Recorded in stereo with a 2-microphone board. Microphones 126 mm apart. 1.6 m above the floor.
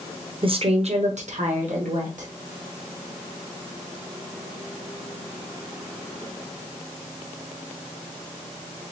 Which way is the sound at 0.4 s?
40° right (ahead or behind).